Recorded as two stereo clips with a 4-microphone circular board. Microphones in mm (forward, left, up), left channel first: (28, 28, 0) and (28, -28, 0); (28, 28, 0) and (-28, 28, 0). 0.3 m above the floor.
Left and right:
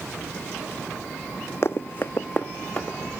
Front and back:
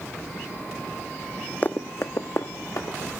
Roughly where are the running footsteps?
Ahead left.